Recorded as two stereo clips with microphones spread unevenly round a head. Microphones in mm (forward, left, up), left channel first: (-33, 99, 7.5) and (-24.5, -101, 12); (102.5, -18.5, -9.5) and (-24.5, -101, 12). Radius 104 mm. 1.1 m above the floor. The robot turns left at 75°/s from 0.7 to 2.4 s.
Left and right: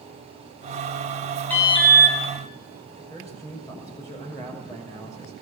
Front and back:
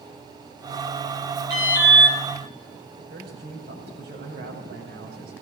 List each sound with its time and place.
1.5 s an alarm: 175° left, 9 m; by 2.2 s 125° left, 9 m
3.0 s a man speaking: 165° left, 5.5 m